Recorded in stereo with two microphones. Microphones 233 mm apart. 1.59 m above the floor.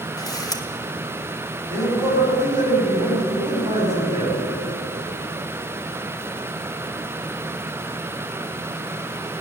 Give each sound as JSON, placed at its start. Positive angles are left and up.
{"t": 0.2, "sound": "a camera shutter", "side_deg": 15, "distance_m": 0.9}
{"t": 1.7, "sound": "a man speaking", "side_deg": -30, "distance_m": 4.5}